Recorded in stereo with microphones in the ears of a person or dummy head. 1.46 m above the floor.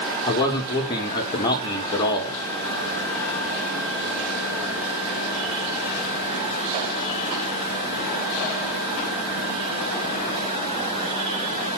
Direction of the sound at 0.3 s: 25° left (ahead or behind).